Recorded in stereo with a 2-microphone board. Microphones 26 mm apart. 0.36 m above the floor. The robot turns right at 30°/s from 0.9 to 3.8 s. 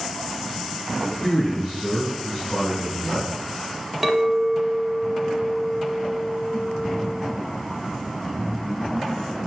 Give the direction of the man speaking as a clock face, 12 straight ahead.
10 o'clock.